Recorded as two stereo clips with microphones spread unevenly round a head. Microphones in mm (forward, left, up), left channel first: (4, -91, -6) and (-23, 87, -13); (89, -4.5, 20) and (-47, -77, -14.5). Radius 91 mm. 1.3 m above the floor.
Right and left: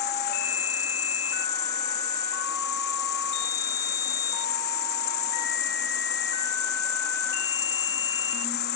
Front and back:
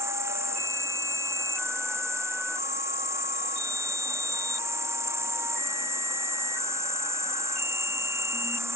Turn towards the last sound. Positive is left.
turn(degrees=-75)